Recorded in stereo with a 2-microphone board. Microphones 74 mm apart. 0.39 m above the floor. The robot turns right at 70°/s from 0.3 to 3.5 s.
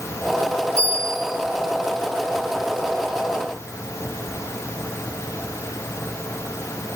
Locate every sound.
0.8 s a bell: 145° right, 9.5 m; by 1.4 s 100° right, 9.5 m